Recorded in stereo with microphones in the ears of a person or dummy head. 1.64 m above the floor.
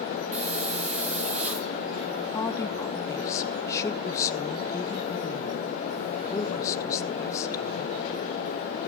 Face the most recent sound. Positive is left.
turn(degrees=20)  # may be behind; listen again after turning